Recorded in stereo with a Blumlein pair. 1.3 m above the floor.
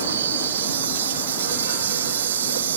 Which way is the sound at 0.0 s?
65° right.